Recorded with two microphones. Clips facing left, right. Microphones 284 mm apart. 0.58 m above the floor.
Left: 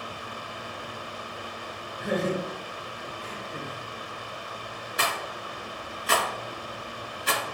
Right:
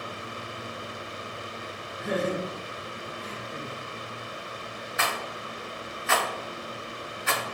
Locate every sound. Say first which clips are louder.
2.0 s laughter: left 1 dB; 70° left (ahead or behind), 2 m; by 3.8 s 50° left (ahead or behind), 1.4 m
5.0 s a rattle: left 1 dB; 40° left (ahead or behind), 0.6 m